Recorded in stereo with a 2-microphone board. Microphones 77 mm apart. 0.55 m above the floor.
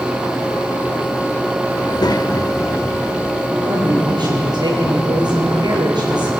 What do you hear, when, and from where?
1.8 s a child speaking: 70° left (ahead or behind), 0.8 m; by 3.5 s 25° left (ahead or behind), 1.2 m
3.6 s a woman speaking: 65° right (ahead or behind), 9.5 m